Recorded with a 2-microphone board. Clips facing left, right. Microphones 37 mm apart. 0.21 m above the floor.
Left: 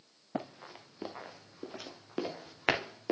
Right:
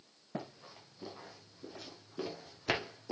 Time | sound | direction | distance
0.3 | running footsteps | 45° left (ahead or behind) | 2 m